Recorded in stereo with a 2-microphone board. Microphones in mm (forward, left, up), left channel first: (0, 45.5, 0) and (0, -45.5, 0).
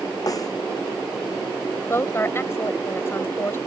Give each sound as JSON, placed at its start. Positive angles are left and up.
{"t": 0.3, "sound": "a snare drum", "side_deg": 40}
{"t": 1.9, "sound": "a woman speaking", "side_deg": 25}